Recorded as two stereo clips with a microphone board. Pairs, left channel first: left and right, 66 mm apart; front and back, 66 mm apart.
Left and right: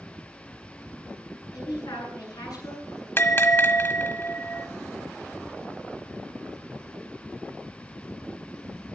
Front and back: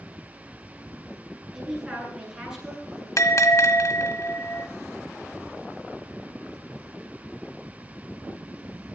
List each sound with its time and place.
1.5 s a man speaking: 100° left, 10 m
3.2 s a bell: 35° left, 1.4 m